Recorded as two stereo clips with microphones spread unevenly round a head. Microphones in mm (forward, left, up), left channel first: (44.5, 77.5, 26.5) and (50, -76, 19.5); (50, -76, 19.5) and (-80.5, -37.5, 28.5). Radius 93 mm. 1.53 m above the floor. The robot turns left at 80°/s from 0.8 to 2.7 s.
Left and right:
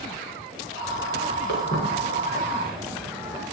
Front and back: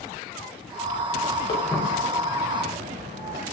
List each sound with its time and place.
1.5 s footsteps: 75° right, 6 m; by 3.4 s 165° right, 4 m